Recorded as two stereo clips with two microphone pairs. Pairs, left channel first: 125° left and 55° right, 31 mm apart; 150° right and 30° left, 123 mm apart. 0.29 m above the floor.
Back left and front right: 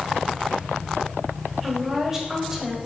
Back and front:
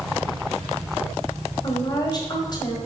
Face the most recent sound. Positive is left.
turn(degrees=-125)